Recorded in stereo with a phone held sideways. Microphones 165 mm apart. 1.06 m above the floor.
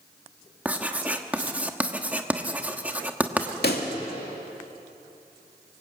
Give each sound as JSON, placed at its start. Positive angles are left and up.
{"t": 0.7, "sound": "writing", "side_deg": -10, "distance_m": 1.2}
{"t": 3.6, "sound": "a pop", "side_deg": 75, "distance_m": 2.5}